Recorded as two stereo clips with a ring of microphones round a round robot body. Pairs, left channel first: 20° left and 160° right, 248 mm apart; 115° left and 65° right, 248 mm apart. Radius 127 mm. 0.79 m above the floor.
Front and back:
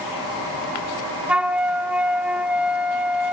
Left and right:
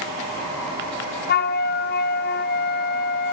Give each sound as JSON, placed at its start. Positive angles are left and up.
{"t": 1.3, "sound": "a flute", "azimuth_deg": 120, "distance_m": 0.8}